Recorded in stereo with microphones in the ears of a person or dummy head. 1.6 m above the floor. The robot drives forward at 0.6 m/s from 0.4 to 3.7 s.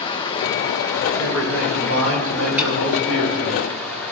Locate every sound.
0.0 s running water: 25° left (ahead or behind), 1.1 m; by 4.1 s 10° left (ahead or behind), 3 m
1.2 s a man speaking: 70° right (ahead or behind), 5.5 m; by 3.6 s 60° right (ahead or behind), 6 m
2.6 s a snare drum: 10° right (ahead or behind), 3 m